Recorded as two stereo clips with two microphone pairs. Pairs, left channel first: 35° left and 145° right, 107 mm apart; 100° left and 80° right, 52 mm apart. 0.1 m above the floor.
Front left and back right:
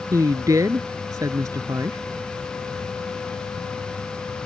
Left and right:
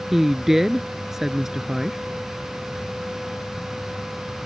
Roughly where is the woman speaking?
Behind right.